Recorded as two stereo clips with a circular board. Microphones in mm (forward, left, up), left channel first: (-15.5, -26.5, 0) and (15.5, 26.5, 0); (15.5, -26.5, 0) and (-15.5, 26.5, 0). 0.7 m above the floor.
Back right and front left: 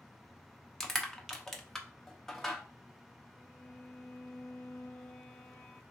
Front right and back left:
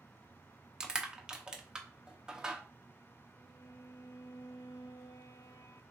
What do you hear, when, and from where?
0.8 s crushing: 170° left, 0.7 m
3.4 s a violin: 55° right, 0.8 m